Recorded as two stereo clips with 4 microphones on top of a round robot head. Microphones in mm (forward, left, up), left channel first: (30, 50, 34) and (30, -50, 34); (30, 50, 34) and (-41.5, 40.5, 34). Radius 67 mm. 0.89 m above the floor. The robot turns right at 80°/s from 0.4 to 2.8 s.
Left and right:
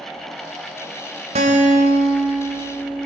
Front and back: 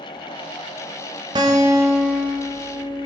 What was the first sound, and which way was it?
A guitar, 125° right.